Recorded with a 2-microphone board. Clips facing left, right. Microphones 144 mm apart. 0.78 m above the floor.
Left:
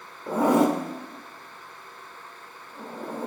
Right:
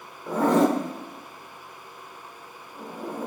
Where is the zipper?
10° left (ahead or behind), 1.4 m.